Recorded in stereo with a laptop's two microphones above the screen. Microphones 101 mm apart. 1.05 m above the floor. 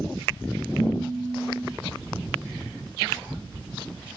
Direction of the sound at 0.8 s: 60° left (ahead or behind).